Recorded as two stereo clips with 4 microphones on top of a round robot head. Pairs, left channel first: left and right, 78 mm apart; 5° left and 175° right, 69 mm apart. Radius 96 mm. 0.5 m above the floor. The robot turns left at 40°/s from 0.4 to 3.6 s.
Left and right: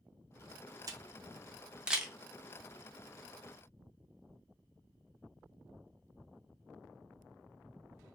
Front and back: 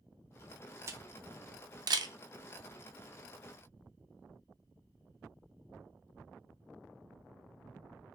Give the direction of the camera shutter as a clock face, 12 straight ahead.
4 o'clock.